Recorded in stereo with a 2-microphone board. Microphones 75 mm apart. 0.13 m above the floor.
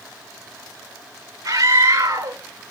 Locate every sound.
1.4 s a scream: 50° right (ahead or behind), 2.5 m